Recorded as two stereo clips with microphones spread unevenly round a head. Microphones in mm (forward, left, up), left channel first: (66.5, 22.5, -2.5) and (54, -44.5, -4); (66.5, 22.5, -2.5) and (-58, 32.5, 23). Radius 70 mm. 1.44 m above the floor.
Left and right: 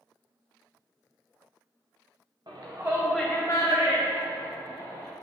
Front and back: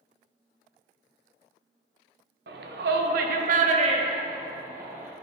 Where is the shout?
165° right, 0.8 m; by 5.1 s 100° left, 1.1 m.